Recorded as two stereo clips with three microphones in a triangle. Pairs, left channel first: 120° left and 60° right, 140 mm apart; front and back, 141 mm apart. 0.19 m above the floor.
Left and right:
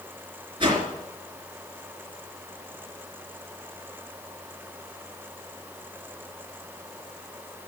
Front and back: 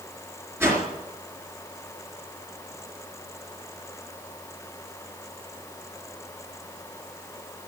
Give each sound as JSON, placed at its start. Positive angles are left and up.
{"t": 0.6, "sound": "a whoosh", "azimuth_deg": -110, "distance_m": 3.5}